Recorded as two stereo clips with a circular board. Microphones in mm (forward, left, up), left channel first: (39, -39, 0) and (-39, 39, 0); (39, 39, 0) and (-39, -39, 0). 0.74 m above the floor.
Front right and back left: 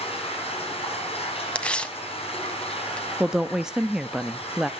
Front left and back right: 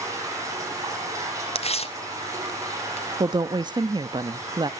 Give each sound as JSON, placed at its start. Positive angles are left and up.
{"t": 0.0, "sound": "running water", "azimuth_deg": -75, "distance_m": 9.5}
{"t": 1.6, "sound": "tearing paper", "azimuth_deg": 35, "distance_m": 1.4}
{"t": 3.2, "sound": "a woman speaking", "azimuth_deg": -145, "distance_m": 0.8}